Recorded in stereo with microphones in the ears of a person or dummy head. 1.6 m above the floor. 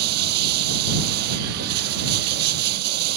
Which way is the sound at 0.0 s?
60° right (ahead or behind).